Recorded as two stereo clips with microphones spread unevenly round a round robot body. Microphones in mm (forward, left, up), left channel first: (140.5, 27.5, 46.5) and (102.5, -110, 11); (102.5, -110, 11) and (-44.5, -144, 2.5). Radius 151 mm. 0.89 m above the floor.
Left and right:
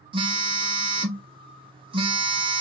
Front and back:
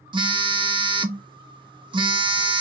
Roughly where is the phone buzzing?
Behind right.